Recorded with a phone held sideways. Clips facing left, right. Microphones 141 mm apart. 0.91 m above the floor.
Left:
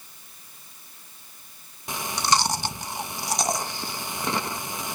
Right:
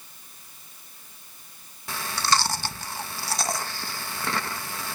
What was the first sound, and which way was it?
Chewing, 20° left (ahead or behind).